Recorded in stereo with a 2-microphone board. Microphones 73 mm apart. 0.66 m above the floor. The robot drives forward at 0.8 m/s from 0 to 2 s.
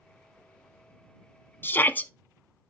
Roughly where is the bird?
No bird in this recording.